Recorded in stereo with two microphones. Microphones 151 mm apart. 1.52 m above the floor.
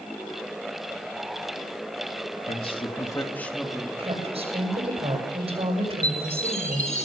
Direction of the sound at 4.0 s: 40° right (ahead or behind).